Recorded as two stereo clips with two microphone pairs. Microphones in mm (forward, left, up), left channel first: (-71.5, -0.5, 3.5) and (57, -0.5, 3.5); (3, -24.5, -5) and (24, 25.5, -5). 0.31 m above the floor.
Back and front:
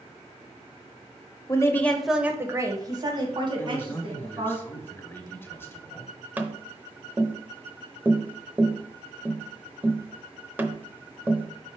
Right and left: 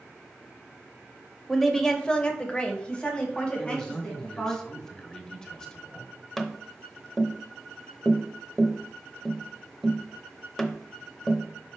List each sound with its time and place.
1.5 s a woman speaking: 170° left, 0.9 m; by 4.6 s 40° right, 3 m
3.6 s a man speaking: 160° right, 1.1 m
6.4 s tapping: 40° right, 0.8 m